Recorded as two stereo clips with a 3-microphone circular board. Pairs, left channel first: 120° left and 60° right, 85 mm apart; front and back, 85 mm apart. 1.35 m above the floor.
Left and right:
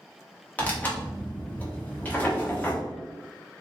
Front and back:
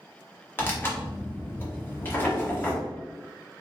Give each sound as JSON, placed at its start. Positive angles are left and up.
{"t": 0.6, "sound": "tearing paper", "azimuth_deg": 55, "distance_m": 1.1}